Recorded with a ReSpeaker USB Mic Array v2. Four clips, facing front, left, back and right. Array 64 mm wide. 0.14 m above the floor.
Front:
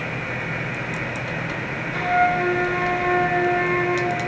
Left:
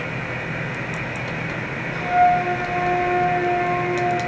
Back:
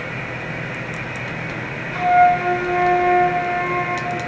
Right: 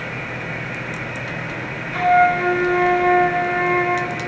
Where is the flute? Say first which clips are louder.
Right 2 dB, back 6 dB; 75° right, 2 m.